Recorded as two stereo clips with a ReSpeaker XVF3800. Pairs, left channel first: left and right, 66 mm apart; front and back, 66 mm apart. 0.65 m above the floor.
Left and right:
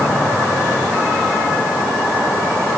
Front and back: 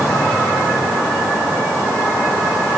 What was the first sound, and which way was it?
Only background noise.